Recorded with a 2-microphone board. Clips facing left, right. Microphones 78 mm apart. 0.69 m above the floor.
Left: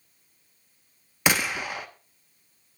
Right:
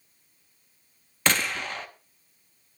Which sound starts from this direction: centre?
A gunshot, at 1.3 s.